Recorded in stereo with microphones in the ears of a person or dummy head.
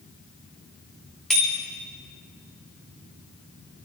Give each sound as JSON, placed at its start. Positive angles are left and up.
{"t": 1.3, "sound": "a bicycle bell", "side_deg": 5, "distance_m": 3.0}